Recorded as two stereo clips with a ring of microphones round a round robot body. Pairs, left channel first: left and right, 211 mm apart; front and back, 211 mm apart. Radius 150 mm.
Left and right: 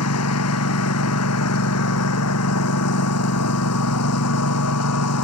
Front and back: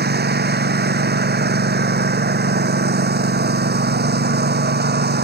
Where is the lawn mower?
135° left.